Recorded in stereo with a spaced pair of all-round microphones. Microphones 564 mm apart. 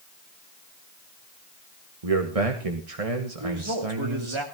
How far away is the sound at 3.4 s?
About 2.5 m.